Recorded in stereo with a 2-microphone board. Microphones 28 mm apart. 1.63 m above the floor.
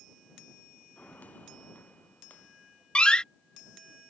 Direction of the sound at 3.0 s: 35° left (ahead or behind).